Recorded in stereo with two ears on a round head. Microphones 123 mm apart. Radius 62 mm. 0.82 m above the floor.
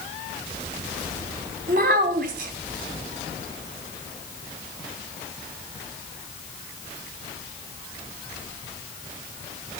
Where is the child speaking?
65° right (ahead or behind), 3.5 m.